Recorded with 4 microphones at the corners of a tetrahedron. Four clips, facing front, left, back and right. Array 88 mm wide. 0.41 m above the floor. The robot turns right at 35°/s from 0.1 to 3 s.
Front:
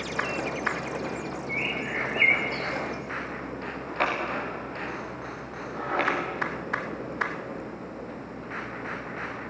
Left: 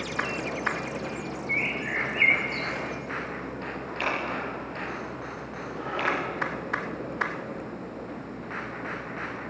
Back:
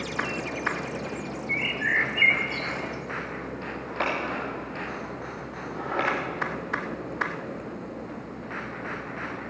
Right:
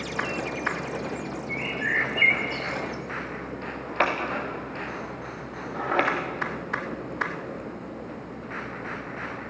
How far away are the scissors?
About 7.5 m.